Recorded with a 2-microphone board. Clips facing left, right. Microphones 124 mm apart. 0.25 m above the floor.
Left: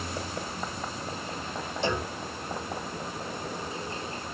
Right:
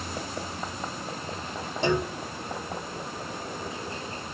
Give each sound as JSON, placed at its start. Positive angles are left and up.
{"t": 1.8, "sound": "a clunk", "side_deg": -55, "distance_m": 1.9}